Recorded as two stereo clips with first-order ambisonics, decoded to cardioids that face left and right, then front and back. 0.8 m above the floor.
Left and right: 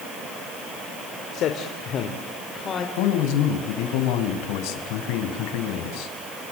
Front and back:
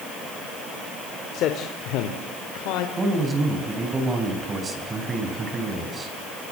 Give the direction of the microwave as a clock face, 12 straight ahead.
No microwave in this recording.